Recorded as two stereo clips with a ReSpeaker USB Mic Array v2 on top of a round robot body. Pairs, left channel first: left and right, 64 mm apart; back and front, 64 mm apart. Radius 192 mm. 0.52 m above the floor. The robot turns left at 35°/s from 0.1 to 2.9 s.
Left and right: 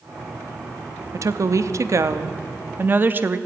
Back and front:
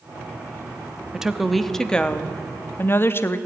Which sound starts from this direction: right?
A woman speaking, at 1.1 s.